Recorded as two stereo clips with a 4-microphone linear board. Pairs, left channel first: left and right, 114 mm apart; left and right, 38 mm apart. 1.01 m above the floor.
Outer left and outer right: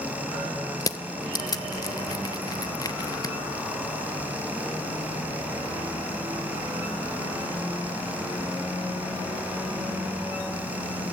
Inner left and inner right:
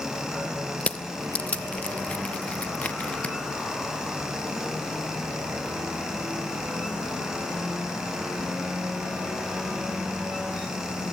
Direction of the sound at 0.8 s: 35° left (ahead or behind).